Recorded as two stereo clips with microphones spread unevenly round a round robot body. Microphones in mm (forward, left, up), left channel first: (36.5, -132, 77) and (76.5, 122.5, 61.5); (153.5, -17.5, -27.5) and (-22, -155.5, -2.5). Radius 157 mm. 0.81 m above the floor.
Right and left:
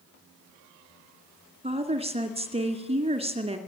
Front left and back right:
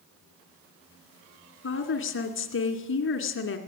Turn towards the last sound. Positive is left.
turn(degrees=15)